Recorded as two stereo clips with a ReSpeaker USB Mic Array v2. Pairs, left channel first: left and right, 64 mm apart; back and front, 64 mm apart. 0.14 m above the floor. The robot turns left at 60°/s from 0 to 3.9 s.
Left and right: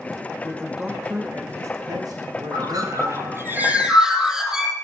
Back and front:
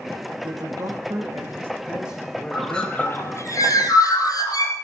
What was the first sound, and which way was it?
A man speaking, 20° left.